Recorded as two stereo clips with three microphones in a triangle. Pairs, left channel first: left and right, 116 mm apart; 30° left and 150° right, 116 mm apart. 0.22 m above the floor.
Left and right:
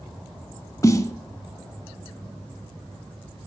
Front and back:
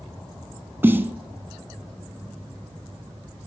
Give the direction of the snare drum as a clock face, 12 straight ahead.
7 o'clock.